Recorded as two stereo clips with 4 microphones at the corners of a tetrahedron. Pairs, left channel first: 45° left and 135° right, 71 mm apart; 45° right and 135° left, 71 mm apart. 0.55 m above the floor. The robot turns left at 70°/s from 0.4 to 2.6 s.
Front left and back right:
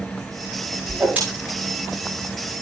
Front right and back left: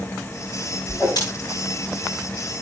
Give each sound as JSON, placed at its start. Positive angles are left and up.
{"t": 0.9, "sound": "a whoosh", "azimuth_deg": -45, "distance_m": 9.5}